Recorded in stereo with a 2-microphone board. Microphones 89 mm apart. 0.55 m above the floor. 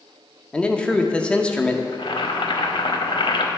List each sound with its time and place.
0.5 s a man speaking: 10° left (ahead or behind), 0.6 m
1.9 s boiling: 75° left (ahead or behind), 0.8 m